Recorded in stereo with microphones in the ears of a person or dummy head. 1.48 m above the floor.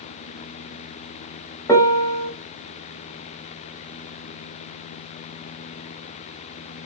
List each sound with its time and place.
1.7 s a piano: 15° left (ahead or behind), 0.7 m